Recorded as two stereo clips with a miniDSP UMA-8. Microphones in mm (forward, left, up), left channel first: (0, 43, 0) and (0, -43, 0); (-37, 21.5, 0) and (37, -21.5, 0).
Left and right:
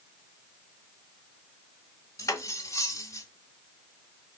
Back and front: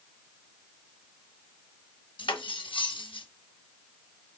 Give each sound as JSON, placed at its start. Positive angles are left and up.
{"t": 2.2, "sound": "cutlery clinking", "azimuth_deg": 140, "distance_m": 0.7}